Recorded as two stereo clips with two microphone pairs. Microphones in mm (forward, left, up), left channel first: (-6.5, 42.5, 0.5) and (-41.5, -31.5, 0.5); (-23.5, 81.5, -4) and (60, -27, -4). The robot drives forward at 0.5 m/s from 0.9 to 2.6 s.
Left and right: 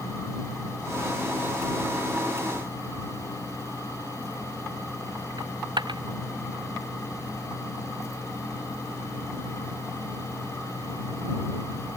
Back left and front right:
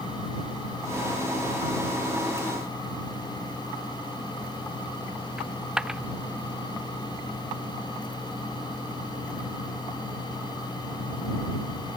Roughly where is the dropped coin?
Behind right.